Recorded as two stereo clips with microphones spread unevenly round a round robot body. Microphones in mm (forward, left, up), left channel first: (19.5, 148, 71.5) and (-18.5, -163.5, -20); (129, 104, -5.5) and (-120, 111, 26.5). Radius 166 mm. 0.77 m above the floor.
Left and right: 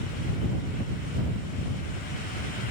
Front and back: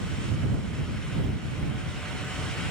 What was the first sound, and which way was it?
Only background noise.